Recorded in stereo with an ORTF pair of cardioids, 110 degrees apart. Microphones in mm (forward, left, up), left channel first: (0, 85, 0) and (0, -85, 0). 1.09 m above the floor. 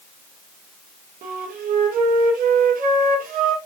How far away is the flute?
About 1.5 m.